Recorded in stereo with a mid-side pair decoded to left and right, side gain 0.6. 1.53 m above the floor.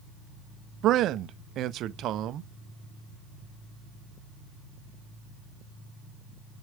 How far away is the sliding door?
No sliding door in this recording.